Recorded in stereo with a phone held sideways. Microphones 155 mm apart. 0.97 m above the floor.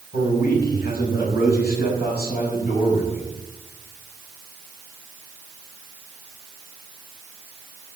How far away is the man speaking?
About 5.5 m.